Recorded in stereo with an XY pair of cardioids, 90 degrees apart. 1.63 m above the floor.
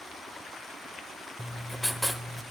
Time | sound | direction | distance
1.4 | writing | 5° left | 1.1 m